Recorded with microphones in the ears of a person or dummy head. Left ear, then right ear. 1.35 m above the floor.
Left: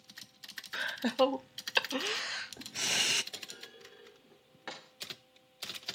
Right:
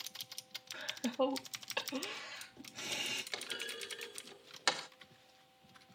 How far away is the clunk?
About 0.6 m.